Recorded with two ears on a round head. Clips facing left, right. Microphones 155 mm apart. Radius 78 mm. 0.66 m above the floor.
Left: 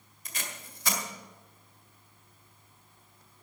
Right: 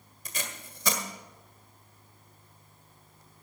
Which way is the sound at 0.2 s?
80° right.